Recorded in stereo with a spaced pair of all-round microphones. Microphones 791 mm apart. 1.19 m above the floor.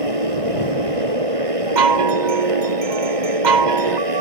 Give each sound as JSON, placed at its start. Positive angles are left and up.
{"t": 0.0, "sound": "a motorcycle", "side_deg": -45}
{"t": 1.8, "sound": "a chime", "side_deg": -65}